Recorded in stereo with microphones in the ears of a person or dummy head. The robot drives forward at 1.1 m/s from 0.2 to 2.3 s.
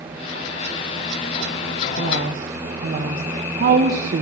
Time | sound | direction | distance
2.0 | a woman speaking | 40° right (ahead or behind) | 1.8 m